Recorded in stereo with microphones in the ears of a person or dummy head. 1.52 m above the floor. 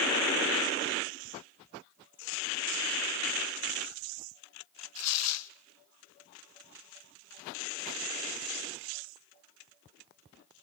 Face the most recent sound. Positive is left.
turn(degrees=75)  # may be behind; listen again after turning